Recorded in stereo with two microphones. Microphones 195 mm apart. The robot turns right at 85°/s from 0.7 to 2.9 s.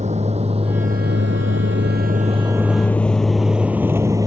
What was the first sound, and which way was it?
A vehicle, 35° right (ahead or behind).